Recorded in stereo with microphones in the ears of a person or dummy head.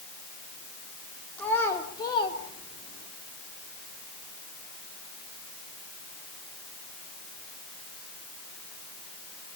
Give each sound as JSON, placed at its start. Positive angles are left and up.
{"t": 1.4, "sound": "a child speaking", "side_deg": 10, "distance_m": 2.5}